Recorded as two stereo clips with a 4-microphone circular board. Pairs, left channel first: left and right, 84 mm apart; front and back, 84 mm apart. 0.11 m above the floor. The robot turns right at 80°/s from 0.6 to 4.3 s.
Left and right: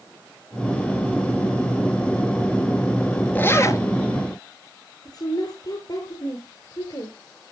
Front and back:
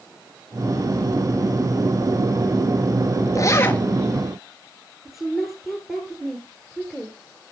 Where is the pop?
I don't hear a pop.